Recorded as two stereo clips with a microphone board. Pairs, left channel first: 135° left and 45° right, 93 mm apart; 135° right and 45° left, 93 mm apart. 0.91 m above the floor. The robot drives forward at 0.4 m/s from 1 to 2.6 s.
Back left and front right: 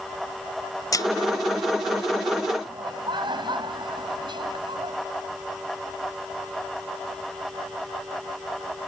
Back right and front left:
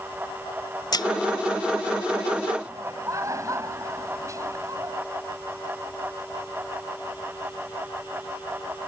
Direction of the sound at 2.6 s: 10° right.